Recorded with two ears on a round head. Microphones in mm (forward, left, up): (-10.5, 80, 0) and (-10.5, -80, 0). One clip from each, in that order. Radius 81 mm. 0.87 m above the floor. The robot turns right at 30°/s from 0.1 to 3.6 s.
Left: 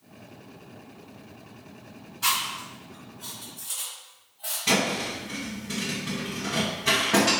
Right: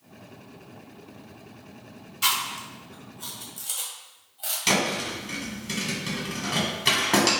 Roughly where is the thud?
Right.